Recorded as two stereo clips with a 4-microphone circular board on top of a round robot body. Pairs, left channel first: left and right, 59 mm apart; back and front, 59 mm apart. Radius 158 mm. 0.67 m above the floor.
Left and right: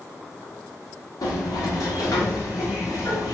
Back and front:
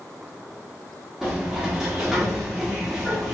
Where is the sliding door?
85° left, 0.9 m.